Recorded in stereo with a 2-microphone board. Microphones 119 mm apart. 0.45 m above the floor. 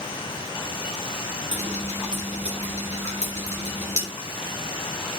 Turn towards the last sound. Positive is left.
turn(degrees=-80)